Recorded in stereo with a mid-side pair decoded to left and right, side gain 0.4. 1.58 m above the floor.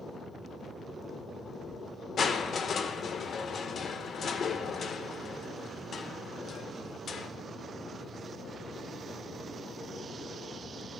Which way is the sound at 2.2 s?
55° left.